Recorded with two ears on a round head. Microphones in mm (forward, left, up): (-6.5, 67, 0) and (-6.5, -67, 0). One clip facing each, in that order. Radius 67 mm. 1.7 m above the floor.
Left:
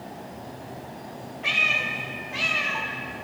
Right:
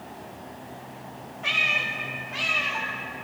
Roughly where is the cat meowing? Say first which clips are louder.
Even; centre.